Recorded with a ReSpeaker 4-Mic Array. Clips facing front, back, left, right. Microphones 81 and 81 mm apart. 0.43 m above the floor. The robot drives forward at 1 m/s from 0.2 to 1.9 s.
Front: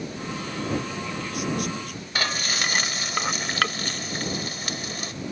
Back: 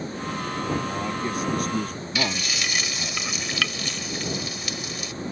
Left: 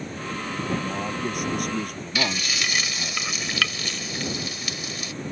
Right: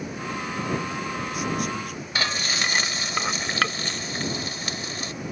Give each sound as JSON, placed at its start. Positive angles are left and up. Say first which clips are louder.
{"t": 0.8, "sound": "a man speaking", "louder": "back 4 dB, left 2 dB", "azimuth_deg": 125}
{"t": 2.1, "sound": "frying", "louder": "front 1 dB, even", "azimuth_deg": -40}